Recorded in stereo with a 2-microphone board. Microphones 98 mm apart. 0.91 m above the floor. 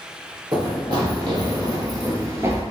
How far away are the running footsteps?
About 1.9 m.